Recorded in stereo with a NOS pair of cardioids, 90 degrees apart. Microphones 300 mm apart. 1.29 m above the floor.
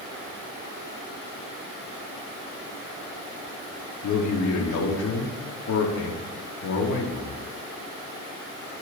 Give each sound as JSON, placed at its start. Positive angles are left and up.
{"t": 4.0, "sound": "a man speaking", "azimuth_deg": 70, "distance_m": 3.0}